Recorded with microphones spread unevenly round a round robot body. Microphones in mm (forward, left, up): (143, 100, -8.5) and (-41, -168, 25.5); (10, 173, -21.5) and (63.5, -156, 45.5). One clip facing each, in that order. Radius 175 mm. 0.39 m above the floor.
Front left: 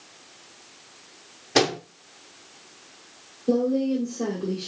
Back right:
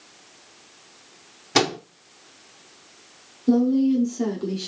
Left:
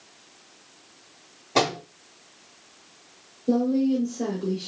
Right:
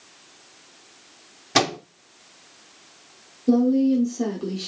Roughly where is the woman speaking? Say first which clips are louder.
Back right 4 dB, right 4 dB; behind right.